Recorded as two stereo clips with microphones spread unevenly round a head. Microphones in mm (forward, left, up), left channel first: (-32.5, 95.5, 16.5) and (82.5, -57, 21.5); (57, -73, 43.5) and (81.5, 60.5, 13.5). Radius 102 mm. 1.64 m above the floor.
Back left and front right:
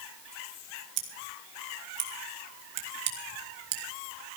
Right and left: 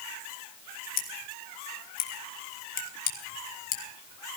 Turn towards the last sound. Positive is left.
turn(degrees=-90)